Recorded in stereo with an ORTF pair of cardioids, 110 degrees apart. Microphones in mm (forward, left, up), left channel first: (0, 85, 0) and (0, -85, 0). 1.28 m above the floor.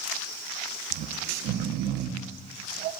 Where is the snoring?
65° right, 0.6 m.